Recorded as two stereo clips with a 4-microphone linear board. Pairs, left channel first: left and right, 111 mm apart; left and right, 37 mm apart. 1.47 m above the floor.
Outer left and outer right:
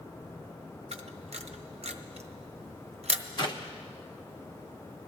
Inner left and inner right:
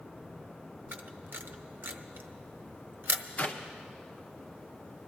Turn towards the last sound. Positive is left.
turn(degrees=45)  # may be behind; listen again after turning